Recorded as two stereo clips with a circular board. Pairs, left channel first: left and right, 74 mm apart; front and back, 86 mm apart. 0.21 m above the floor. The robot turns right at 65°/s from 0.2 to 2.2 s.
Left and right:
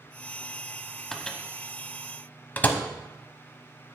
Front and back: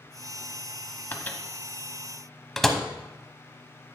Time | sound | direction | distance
1.1 | a microwave | 15° left | 0.8 m